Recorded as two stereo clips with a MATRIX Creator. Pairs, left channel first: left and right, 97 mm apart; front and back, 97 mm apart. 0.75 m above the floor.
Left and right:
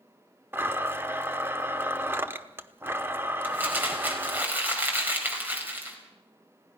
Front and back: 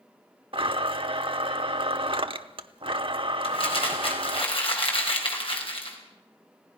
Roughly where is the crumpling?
Ahead.